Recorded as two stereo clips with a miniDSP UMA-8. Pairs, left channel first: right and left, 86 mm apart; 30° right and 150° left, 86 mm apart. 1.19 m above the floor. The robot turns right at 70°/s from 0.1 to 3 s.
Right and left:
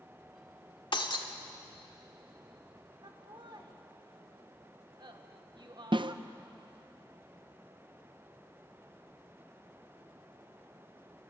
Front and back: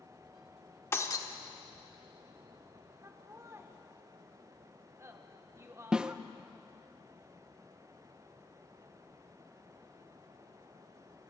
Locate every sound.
0.9 s breaking glass: 90° right, 1.4 m; by 1.3 s 65° right, 1.4 m
3.0 s laughter: 95° left, 1.2 m
5.9 s a snare drum: 70° left, 0.6 m